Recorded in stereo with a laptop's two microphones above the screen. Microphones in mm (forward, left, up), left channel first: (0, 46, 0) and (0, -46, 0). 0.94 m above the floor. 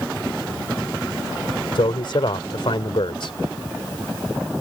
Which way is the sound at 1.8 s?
65° left (ahead or behind).